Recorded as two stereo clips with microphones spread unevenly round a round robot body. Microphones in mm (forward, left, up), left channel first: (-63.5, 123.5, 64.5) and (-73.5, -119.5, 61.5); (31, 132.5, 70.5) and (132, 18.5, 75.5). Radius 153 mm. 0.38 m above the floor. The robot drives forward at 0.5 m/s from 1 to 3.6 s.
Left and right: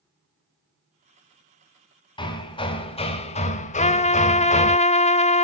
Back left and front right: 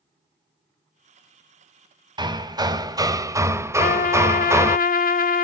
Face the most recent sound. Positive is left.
turn(degrees=150)